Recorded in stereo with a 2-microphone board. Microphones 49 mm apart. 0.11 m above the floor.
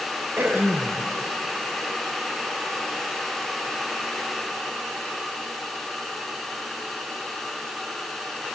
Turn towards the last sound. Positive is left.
turn(degrees=-50)  # may be behind; listen again after turning